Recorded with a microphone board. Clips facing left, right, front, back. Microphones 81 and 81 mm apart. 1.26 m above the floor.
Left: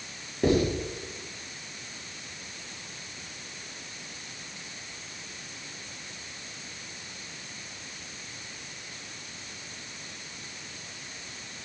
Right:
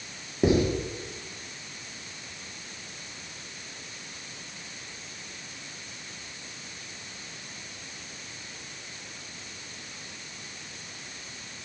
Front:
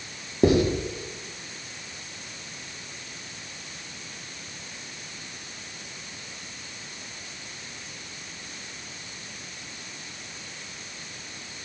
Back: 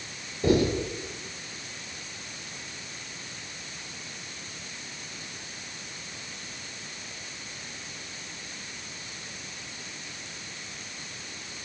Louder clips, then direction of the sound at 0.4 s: Right 1 dB, front 3 dB; 15° right.